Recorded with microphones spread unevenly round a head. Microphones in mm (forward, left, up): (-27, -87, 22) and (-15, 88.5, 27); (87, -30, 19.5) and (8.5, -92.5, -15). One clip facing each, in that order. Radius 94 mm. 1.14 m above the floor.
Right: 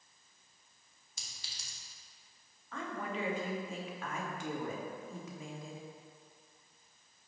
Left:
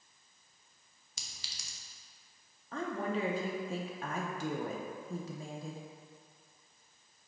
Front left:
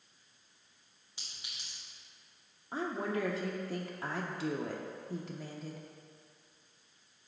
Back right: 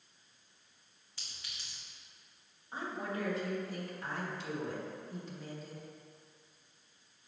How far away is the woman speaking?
About 0.8 m.